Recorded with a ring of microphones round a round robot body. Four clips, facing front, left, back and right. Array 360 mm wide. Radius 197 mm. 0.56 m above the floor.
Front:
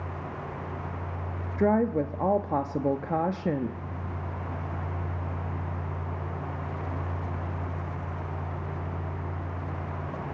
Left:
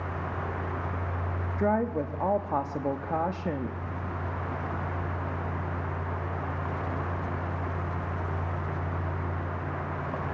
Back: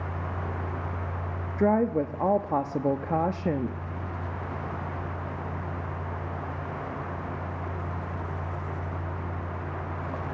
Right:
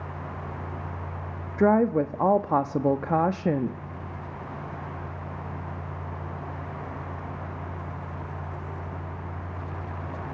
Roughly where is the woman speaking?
Right.